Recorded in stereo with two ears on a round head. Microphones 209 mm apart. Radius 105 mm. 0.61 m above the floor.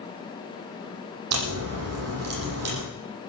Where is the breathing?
I don't hear breathing.